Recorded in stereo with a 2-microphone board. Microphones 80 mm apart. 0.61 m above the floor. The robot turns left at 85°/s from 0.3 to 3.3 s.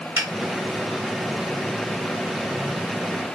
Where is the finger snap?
40° right (ahead or behind), 1.5 m.